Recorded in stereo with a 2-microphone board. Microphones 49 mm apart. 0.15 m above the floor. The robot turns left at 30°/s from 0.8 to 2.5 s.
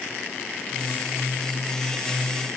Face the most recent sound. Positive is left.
No sound to turn to.